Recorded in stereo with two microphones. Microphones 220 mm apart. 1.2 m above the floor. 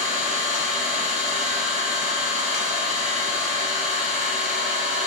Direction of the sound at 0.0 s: 35° right (ahead or behind).